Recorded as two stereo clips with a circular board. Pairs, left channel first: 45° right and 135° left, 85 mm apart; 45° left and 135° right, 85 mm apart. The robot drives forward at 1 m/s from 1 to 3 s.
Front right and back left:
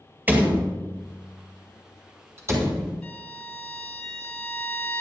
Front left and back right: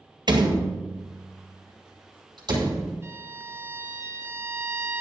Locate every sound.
0.3 s a door slam: 155° right, 2 m; by 3.0 s 170° right, 4 m
3.0 s a violin: 110° right, 1.6 m